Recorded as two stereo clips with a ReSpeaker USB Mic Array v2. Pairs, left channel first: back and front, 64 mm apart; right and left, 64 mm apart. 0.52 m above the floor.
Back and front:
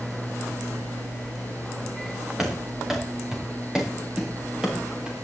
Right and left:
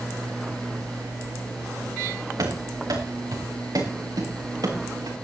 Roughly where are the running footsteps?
Left.